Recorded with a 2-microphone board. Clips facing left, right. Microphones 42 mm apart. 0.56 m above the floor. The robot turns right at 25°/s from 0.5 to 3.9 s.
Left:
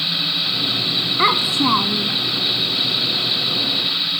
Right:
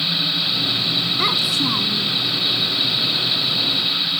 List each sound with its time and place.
1.2 s a child speaking: 30° left (ahead or behind); by 2.2 s 55° left (ahead or behind)